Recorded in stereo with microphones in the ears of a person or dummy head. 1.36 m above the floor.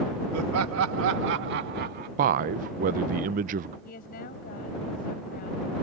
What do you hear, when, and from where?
0.3 s laughter: 85° right; by 2.1 s 50° right (ahead or behind)
2.2 s a man speaking: 45° right (ahead or behind)
3.9 s a woman speaking: 45° left (ahead or behind)